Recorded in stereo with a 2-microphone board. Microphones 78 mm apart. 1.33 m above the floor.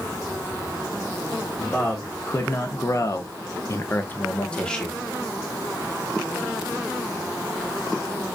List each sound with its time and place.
1.6 s a man speaking: 25° left (ahead or behind), 1.2 m; by 5.0 s 5° left (ahead or behind), 0.9 m